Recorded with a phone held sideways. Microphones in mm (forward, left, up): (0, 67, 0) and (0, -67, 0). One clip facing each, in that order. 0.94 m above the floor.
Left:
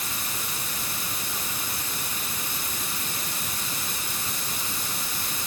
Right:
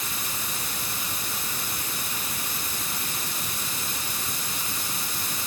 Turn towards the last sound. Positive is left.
No sound to turn to.